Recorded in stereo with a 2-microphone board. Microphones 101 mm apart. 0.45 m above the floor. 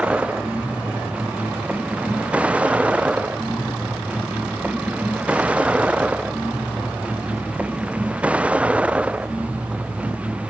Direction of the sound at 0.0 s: 10° right (ahead or behind).